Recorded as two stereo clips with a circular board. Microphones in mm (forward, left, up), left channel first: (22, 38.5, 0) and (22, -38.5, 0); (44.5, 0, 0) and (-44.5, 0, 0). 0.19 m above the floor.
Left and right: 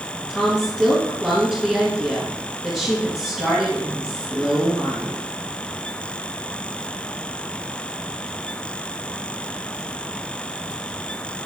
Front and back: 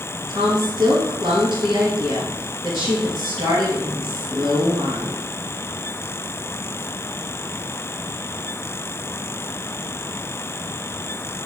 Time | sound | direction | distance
0.3 | a woman speaking | 175° right | 2.5 m